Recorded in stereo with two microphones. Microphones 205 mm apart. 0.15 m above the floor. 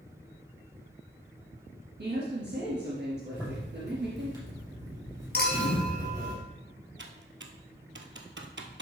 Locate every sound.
2.0 s a woman speaking: 60° right (ahead or behind), 2.5 m
3.3 s a zipper: 15° right (ahead or behind), 3.5 m
5.3 s a clink: 55° left (ahead or behind), 2.5 m
7.0 s typing on a keyboard: 70° right (ahead or behind), 0.9 m